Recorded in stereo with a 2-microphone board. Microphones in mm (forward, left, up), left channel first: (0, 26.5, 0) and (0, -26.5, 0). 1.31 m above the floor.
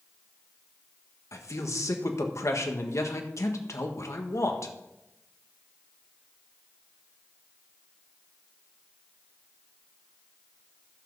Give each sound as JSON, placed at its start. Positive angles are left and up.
{"t": 1.3, "sound": "a man speaking", "side_deg": 65, "distance_m": 1.5}